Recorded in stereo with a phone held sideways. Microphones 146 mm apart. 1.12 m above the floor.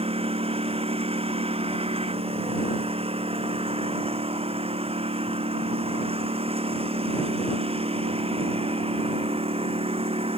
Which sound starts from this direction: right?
A lawn mower, at 0.0 s.